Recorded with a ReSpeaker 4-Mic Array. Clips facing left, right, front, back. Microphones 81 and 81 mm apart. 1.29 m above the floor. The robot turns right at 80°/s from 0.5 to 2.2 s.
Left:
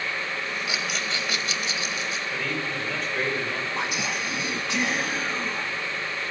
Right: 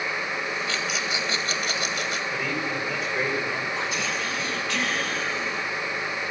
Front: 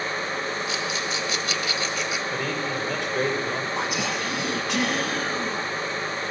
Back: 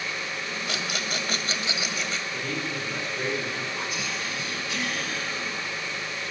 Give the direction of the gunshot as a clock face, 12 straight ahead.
No gunshot in this recording.